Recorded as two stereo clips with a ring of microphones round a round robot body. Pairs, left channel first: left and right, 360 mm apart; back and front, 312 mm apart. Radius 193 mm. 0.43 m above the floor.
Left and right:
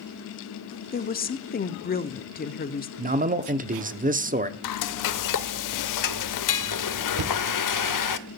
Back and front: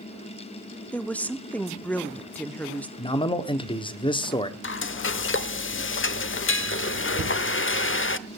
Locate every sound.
0.9 s a woman speaking: 100° left, 0.9 m
3.0 s a man speaking: 125° right, 1.0 m
4.6 s frying: 125° left, 0.8 m
7.2 s knocking: 55° right, 1.7 m